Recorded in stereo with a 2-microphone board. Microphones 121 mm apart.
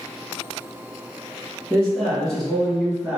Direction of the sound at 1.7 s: 10° left (ahead or behind).